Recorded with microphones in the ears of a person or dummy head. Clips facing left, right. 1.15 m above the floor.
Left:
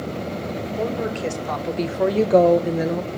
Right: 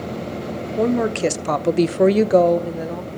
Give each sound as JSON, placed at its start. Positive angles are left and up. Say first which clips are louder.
{"t": 0.8, "sound": "a woman speaking", "louder": "right 8 dB", "side_deg": -70, "distance_m": 1.6}